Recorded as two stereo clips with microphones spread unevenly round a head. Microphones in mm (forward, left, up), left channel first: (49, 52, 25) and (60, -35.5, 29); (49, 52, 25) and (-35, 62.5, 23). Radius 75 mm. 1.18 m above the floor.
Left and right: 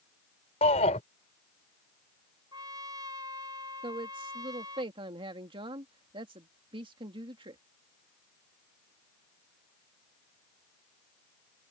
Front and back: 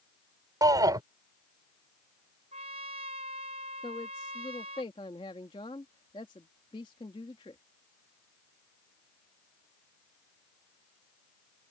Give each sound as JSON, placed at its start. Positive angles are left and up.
{"t": 0.6, "sound": "a shout", "azimuth_deg": 130}
{"t": 2.5, "sound": "a trumpet", "azimuth_deg": -150}
{"t": 3.8, "sound": "a woman speaking", "azimuth_deg": -55}